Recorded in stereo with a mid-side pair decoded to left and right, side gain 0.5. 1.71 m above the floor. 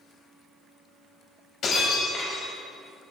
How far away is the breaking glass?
About 5.5 m.